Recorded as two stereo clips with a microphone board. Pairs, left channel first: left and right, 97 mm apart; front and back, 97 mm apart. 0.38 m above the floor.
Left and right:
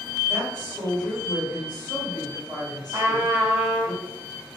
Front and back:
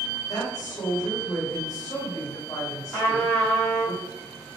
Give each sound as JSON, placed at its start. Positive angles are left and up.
{"t": 0.3, "sound": "a woman speaking", "azimuth_deg": -40, "distance_m": 1.8}
{"t": 2.9, "sound": "a trumpet", "azimuth_deg": -60, "distance_m": 1.8}